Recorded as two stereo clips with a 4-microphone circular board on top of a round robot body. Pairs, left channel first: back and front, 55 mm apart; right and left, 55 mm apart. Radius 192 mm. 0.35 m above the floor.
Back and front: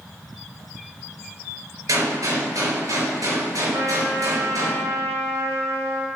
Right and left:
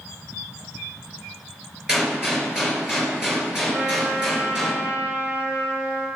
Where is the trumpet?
35° left, 2.5 m.